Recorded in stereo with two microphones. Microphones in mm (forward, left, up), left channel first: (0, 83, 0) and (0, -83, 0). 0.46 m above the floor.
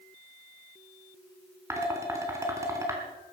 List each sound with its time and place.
1.7 s dishes clattering: 15° right (ahead or behind), 3 m